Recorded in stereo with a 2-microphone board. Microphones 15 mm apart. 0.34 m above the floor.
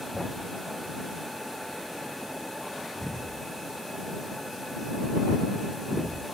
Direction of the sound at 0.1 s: 45° left (ahead or behind).